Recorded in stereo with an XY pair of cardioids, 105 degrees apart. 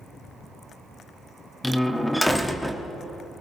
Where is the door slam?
5° left, 1.4 m.